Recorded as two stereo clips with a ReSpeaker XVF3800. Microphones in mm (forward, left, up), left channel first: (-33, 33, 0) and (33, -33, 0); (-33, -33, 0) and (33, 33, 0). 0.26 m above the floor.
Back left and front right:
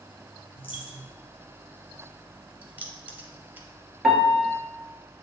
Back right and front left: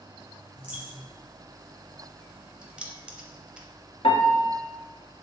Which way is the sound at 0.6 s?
120° left.